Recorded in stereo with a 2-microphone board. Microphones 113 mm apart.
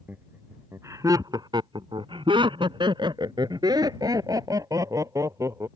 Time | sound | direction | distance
0.1 | laughter | 15° right (ahead or behind) | ?